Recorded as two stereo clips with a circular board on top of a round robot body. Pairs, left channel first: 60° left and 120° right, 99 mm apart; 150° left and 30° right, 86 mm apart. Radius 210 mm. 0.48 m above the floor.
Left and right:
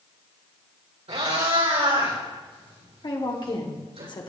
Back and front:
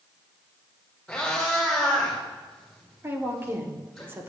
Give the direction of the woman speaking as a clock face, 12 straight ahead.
11 o'clock.